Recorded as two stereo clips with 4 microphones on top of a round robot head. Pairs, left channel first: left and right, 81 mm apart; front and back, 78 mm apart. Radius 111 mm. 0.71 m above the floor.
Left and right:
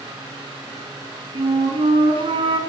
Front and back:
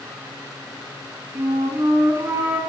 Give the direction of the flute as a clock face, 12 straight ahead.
4 o'clock.